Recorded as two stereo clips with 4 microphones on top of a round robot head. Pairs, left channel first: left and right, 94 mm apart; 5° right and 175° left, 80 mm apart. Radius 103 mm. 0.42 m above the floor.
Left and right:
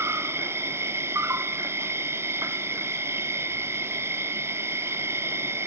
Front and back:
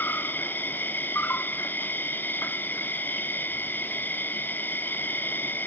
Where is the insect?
50° right, 0.7 m.